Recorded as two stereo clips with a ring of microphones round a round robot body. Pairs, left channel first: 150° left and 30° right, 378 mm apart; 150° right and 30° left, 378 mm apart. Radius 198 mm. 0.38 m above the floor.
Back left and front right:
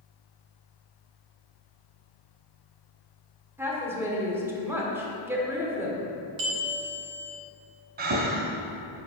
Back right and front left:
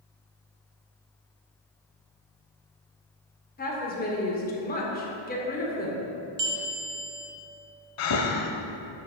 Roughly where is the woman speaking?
Right.